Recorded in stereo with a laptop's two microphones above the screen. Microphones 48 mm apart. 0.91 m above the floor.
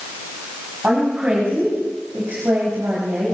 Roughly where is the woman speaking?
Right.